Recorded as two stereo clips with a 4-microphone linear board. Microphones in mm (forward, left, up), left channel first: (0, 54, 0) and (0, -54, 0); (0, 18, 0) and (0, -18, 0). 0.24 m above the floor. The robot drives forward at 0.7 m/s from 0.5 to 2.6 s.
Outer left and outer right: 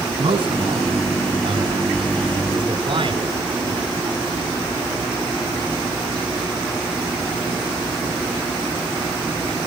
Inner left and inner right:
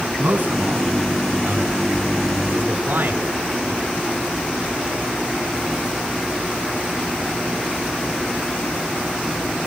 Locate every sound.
0.2 s a man speaking: 50° right (ahead or behind), 2 m; by 3.9 s 55° right (ahead or behind), 2 m